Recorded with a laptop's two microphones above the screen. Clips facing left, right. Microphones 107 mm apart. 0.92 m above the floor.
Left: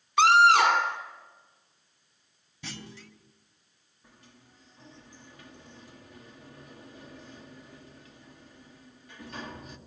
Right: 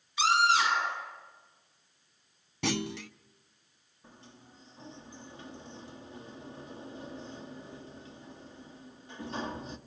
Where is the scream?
70° left (ahead or behind), 4 m.